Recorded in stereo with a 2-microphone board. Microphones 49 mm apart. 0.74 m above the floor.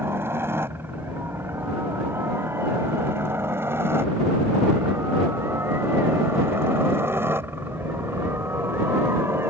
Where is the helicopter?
55° right (ahead or behind).